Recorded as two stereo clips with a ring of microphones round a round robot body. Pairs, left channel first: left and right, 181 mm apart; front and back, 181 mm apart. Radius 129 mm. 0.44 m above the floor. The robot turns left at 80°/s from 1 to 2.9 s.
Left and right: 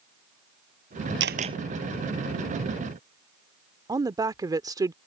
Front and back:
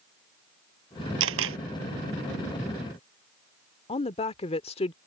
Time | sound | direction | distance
1.2 | a camera shutter | 140° right | ?
3.9 | a woman speaking | 35° right | ?